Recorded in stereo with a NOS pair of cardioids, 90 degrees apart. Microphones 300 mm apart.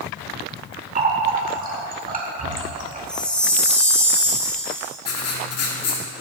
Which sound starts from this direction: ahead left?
Writing, at 5.0 s.